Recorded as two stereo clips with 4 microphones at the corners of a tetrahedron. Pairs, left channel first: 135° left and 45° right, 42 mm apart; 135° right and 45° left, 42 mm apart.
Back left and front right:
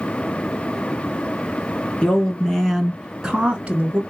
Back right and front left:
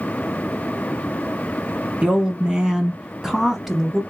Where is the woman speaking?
90° left, 1.3 m; by 4.0 s 40° right, 1.3 m.